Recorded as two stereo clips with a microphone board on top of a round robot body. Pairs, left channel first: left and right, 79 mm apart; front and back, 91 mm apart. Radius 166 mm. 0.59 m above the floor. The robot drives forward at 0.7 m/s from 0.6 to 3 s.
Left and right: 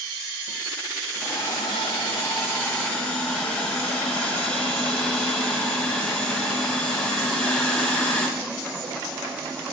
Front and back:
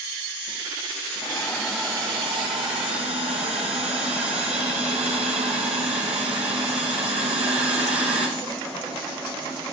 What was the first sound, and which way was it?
A hiss, 35° left.